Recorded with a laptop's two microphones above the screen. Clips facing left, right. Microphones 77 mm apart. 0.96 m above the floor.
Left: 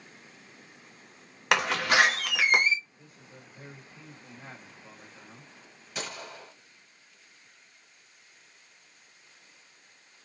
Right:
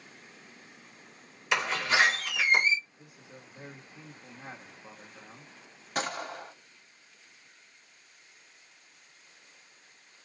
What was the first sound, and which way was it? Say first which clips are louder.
A door slam: left 3 dB; 65° left (ahead or behind).